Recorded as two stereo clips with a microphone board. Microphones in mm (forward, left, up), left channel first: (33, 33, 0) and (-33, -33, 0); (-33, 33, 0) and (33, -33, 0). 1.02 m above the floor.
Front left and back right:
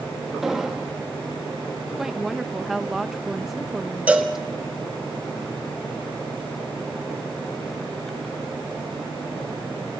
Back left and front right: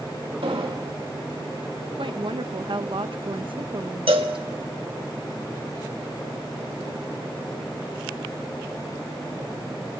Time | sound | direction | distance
0.4 | an explosion | 50° right | 2.0 m
2.0 | a woman speaking | 50° right | 0.8 m
4.1 | a cowbell | 60° right | 1.4 m